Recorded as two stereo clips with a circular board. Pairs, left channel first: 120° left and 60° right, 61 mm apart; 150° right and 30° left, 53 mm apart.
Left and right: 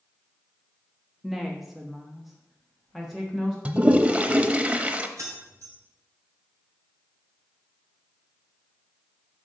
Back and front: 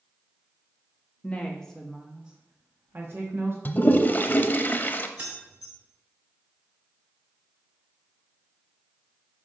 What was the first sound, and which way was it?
A woman speaking, 145° right.